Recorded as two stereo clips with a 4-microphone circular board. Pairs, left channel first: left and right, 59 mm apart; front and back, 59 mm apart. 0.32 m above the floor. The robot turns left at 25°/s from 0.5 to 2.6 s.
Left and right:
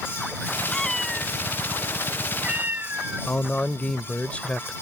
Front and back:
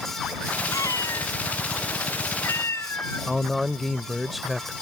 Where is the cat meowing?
10° left; by 3.3 s 35° right.